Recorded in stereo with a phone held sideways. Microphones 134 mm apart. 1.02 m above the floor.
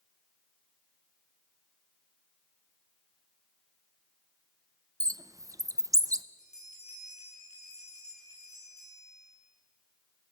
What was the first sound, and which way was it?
A bird, 25° right (ahead or behind).